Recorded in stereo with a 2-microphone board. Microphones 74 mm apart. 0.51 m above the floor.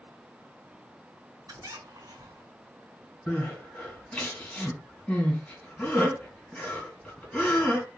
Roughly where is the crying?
Centre.